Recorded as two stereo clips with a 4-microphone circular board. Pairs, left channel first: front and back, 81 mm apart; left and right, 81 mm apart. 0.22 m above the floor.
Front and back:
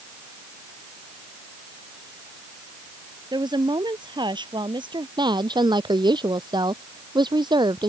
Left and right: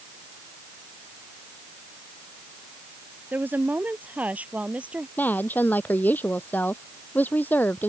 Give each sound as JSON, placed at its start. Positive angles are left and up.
{"t": 3.3, "sound": "a woman speaking", "azimuth_deg": -155}
{"t": 5.2, "sound": "a woman speaking", "azimuth_deg": 155}